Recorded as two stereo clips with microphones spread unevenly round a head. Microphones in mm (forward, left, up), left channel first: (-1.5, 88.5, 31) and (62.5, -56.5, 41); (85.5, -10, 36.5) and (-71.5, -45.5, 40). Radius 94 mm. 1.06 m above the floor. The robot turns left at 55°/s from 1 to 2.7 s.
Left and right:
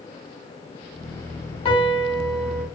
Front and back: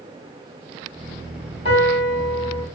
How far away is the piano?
About 0.9 m.